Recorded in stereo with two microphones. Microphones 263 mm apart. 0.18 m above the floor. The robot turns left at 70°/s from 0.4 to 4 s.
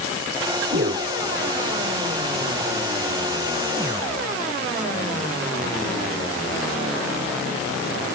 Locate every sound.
0.7 s a whoosh: 50° right (ahead or behind); by 1.1 s 25° right (ahead or behind)